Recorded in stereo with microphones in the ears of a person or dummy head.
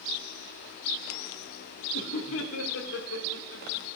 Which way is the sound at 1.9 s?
75° left (ahead or behind).